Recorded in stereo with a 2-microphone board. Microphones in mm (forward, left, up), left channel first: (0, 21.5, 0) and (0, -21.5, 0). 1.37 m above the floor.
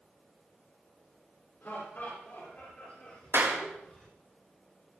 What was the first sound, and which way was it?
Laughter, 55° left (ahead or behind).